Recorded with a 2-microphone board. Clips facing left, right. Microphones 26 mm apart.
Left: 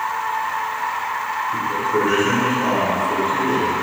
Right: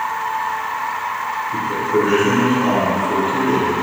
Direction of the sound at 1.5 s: 10° right (ahead or behind).